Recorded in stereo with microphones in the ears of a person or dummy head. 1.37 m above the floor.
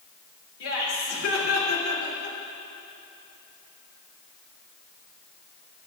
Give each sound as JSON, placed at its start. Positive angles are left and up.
{"t": 0.6, "sound": "laughter", "side_deg": 80, "distance_m": 3.0}